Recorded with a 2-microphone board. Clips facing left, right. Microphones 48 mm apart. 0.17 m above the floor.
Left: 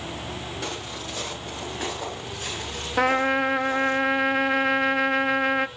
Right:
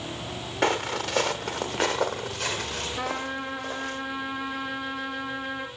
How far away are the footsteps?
About 1.0 m.